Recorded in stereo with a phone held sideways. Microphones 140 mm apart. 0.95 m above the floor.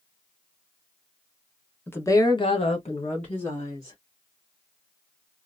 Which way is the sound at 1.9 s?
15° left (ahead or behind).